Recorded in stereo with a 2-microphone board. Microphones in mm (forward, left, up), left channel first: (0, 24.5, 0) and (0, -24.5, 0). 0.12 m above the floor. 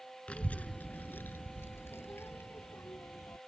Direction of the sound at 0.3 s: 25° left (ahead or behind).